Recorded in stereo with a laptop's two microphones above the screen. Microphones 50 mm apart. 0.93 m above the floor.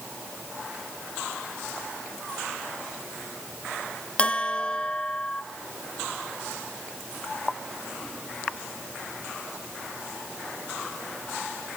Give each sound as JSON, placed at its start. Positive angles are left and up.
{"t": 4.2, "sound": "a bell", "side_deg": 25, "distance_m": 0.8}